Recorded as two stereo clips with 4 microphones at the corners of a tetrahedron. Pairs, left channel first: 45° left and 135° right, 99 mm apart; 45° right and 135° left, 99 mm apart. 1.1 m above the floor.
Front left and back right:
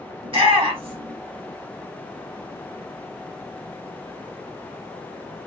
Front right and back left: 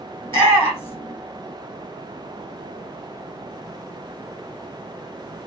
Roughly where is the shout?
Right.